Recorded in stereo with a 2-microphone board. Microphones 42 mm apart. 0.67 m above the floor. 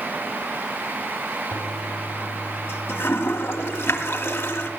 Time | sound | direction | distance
1.5 | a toilet flushing | 85° left | 1.8 m